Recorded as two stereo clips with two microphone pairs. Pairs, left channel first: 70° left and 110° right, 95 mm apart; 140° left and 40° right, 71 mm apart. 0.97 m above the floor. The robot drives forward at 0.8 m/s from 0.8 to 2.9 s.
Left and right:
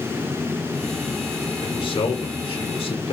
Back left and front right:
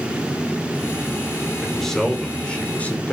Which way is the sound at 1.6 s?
50° left.